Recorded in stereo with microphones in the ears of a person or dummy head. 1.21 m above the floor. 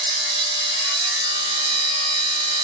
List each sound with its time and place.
0.0 s a machine running: 35° right (ahead or behind), 2 m